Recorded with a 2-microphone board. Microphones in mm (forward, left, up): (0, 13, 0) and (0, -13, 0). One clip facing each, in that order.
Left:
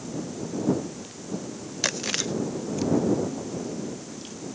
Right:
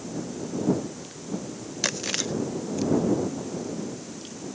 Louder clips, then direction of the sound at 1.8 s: Left 1 dB; 5° left (ahead or behind).